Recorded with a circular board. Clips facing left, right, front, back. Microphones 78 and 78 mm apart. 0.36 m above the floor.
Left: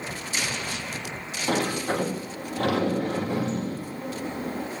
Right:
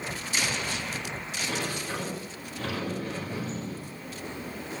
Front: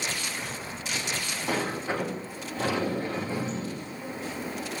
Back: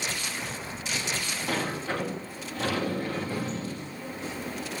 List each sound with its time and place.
1.5 s a sliding door: 70° left, 3.5 m